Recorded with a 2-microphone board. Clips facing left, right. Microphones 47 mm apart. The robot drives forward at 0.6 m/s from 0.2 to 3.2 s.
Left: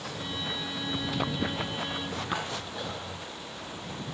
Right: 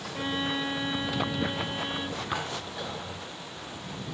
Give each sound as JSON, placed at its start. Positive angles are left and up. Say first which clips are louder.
{"t": 0.1, "sound": "a violin", "louder": "right 7 dB", "side_deg": -50, "distance_m": 0.8}